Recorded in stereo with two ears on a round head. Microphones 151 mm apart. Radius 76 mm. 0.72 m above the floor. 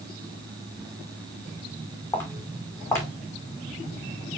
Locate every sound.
2.1 s footsteps: 15° left (ahead or behind), 2.5 m